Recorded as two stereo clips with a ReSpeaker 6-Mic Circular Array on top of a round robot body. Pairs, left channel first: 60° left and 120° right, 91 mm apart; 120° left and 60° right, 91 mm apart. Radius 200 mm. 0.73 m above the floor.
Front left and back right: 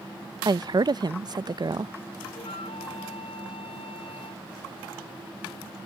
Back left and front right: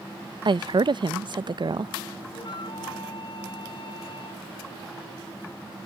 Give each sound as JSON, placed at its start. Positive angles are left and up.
{"t": 0.5, "sound": "a woman speaking", "azimuth_deg": -85}
{"t": 2.4, "sound": "a flute", "azimuth_deg": 80}